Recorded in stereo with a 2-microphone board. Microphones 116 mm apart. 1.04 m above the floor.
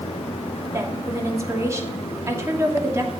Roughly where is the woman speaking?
Right.